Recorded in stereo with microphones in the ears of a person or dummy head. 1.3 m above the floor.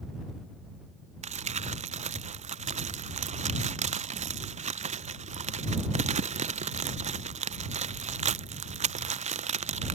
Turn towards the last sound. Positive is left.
turn(degrees=-45)  # may be behind; listen again after turning